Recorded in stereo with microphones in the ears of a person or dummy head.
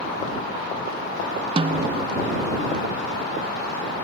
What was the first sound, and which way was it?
A snare drum, 30° right (ahead or behind).